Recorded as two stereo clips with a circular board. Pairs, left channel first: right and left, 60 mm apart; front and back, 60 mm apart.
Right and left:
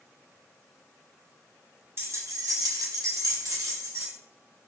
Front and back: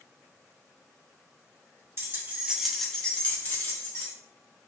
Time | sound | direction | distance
2.0 | keys jangling | 135° left | 0.6 m